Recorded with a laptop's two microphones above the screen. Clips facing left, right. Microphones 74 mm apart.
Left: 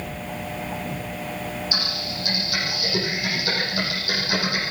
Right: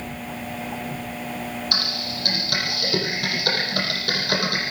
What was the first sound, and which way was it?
Typing on a keyboard, 65° right (ahead or behind).